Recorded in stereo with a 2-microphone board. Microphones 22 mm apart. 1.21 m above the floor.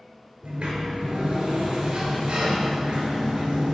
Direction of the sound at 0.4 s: 45° right (ahead or behind).